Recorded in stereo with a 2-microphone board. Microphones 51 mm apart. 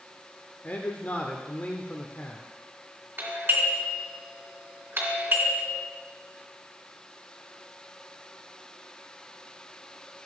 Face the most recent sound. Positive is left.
turn(degrees=-40)  # may be behind; listen again after turning